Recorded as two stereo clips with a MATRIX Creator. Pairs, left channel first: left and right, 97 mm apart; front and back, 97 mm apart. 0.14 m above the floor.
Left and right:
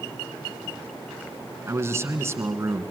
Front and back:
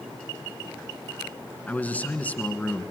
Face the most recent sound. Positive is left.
turn(degrees=-60)